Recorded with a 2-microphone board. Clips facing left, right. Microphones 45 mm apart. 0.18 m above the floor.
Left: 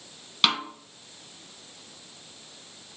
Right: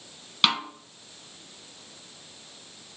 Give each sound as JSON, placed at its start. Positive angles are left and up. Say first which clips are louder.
{"t": 0.4, "sound": "a snare drum", "louder": "even", "side_deg": 0, "distance_m": 0.6}